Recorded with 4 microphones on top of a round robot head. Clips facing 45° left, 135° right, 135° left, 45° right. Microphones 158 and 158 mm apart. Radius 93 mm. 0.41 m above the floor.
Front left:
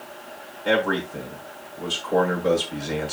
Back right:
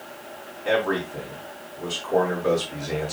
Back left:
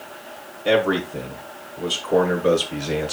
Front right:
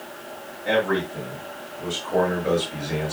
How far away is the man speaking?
About 6 m.